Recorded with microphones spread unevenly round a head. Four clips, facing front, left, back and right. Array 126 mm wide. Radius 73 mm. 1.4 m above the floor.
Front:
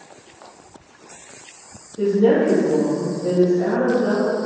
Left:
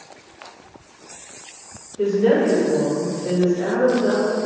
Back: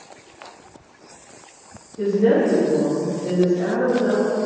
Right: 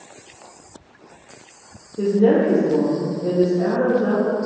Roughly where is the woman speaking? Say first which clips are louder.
Right 1 dB, front 1 dB; right.